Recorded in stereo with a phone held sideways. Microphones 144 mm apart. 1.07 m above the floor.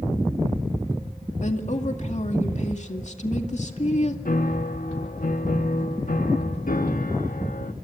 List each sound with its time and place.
1.4 s a woman speaking: 55° left (ahead or behind), 2 m
4.2 s a piano: 70° left (ahead or behind), 0.9 m